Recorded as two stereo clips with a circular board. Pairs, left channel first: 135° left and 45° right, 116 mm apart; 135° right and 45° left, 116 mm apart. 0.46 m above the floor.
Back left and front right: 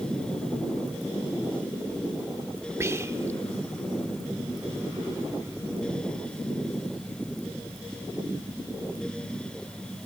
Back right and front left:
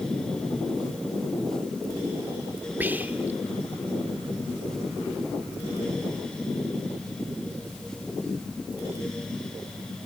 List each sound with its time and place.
2.8 s whispering: 10° right, 0.9 m